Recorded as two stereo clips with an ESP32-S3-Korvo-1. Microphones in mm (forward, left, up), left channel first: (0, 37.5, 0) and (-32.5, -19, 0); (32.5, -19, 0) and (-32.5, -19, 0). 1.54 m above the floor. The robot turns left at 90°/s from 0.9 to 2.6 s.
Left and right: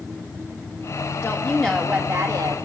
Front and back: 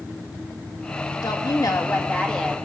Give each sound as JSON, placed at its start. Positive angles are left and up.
{"t": 1.2, "sound": "a woman speaking", "azimuth_deg": 15, "distance_m": 2.5}